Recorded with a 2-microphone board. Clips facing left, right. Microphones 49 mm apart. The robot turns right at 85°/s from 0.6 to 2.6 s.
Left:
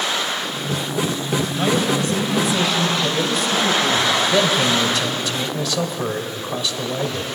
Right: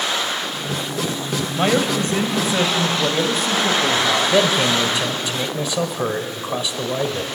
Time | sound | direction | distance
1.6 | a man speaking | 140° right | 1.9 m
4.3 | a man speaking | 20° right (ahead or behind) | 1.4 m